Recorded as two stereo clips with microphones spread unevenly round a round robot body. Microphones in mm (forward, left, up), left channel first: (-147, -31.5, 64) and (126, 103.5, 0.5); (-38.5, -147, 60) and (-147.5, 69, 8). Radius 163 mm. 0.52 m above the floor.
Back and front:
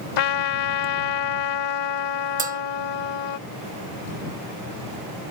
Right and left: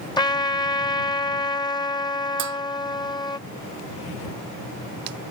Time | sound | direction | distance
0.2 | a trumpet | 140° right | ?
2.4 | a bell | 95° left | ?